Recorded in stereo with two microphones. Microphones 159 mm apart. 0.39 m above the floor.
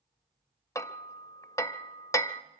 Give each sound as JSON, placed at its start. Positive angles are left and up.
{"t": 0.8, "sound": "hammering", "side_deg": 20, "distance_m": 0.5}